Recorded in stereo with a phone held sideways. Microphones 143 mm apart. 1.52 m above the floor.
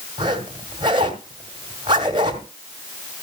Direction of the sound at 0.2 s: 35° right (ahead or behind).